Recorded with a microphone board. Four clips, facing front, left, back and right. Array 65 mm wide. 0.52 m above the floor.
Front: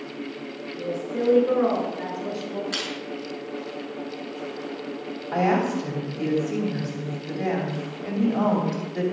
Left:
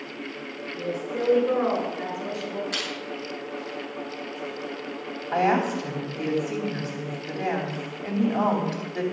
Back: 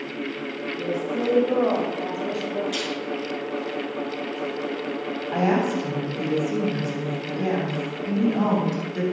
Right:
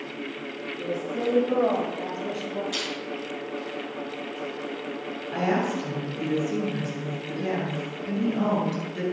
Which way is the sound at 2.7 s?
30° left.